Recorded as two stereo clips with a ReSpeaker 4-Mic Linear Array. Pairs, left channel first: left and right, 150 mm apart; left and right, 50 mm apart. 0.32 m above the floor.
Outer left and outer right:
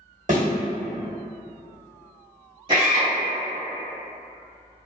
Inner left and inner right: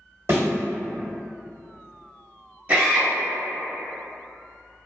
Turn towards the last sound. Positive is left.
turn(degrees=-35)  # may be behind; listen again after turning